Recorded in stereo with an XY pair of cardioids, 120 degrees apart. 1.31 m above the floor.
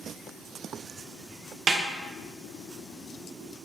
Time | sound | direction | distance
1.7 | a snare drum | 35° right | 0.6 m